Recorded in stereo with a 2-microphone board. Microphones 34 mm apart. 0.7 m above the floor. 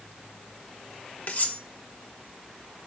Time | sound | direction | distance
1.3 | cutlery clinking | 50° left (ahead or behind) | 0.6 m